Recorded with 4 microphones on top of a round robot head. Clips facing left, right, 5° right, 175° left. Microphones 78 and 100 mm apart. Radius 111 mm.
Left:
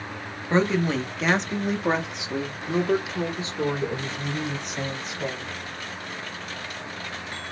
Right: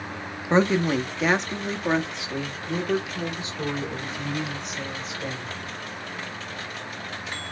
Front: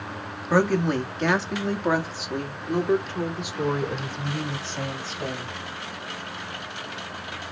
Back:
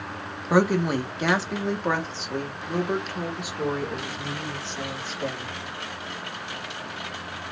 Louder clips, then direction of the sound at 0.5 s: Right 2 dB, even; 125° right.